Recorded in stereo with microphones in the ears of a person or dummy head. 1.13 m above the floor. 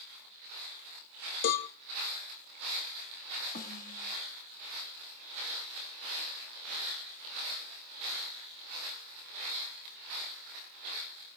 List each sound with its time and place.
1.4 s a cowbell: 50° left (ahead or behind), 0.6 m
3.5 s a snare drum: 45° left (ahead or behind), 1.7 m